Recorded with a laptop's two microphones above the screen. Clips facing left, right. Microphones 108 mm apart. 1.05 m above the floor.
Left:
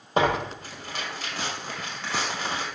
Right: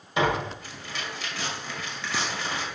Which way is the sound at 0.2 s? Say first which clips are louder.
Left 2 dB; 45° left (ahead or behind).